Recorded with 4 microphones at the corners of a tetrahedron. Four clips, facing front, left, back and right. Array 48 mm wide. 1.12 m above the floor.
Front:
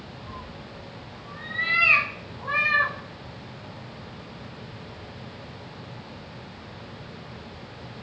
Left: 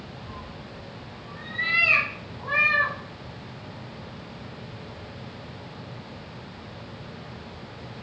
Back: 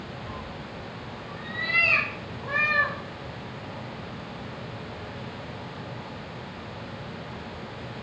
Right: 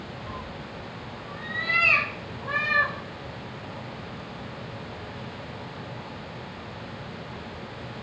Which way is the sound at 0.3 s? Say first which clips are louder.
Right 3 dB, back 3 dB; 110° right.